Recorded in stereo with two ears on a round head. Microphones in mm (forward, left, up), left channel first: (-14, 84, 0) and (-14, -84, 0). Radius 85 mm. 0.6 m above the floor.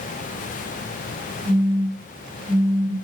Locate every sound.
1.4 s a phone buzzing: 25° right (ahead or behind), 1.4 m